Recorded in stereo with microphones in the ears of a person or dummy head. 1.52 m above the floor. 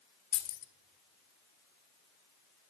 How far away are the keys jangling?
About 1.1 m.